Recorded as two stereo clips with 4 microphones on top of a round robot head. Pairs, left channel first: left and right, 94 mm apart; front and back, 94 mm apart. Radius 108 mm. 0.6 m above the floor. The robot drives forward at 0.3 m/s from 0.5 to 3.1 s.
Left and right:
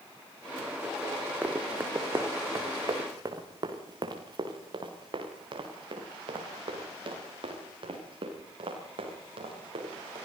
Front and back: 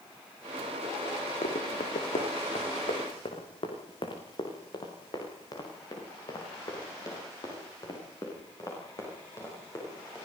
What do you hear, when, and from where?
1.4 s running footsteps: 15° right, 2.5 m; by 10.2 s 60° right, 8.5 m